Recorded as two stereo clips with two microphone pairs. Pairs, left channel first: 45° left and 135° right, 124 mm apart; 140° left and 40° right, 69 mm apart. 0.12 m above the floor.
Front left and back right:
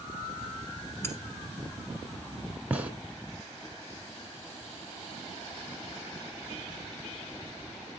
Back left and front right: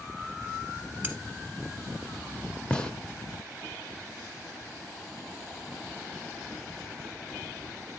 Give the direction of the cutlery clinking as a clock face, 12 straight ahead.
12 o'clock.